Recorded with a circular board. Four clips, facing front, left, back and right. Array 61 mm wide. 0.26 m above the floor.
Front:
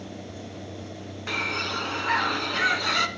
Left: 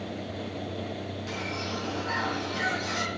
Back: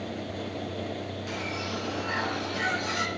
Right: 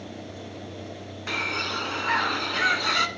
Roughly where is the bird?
Ahead right.